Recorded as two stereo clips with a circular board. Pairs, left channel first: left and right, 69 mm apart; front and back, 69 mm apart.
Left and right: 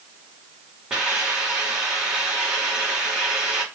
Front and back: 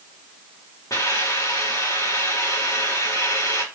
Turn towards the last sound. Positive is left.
turn(degrees=-15)